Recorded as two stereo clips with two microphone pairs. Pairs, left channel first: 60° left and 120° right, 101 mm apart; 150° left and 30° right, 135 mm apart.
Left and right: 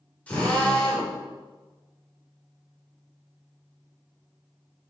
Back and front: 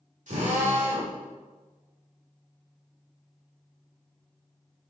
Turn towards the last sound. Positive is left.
turn(degrees=-15)